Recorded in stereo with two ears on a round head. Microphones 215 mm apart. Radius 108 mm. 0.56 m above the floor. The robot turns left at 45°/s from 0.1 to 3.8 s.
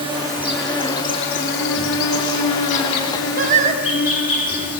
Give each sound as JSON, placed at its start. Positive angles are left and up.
{"t": 0.0, "sound": "an insect", "azimuth_deg": -160, "distance_m": 4.5}
{"t": 3.4, "sound": "singing", "side_deg": -40, "distance_m": 1.3}